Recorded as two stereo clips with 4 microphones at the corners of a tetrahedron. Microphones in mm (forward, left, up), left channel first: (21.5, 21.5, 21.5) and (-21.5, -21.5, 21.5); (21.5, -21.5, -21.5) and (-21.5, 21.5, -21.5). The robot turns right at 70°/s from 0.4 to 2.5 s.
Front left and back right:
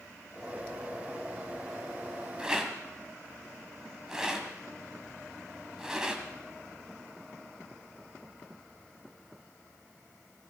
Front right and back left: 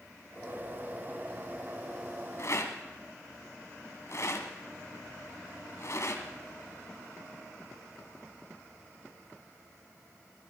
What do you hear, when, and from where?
2.4 s a rattle: 65° right, 1.8 m; by 6.2 s 60° right, 1.8 m